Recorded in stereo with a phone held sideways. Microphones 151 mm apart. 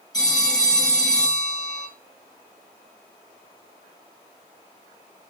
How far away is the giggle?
I don't hear a giggle.